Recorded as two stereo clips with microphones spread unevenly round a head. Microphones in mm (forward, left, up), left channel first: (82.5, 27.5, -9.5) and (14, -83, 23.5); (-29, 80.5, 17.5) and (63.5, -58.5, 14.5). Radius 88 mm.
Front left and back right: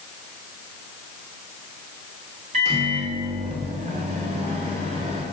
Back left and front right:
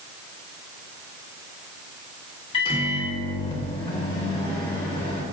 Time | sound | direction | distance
2.5 | a microwave | 175° right | 1.6 m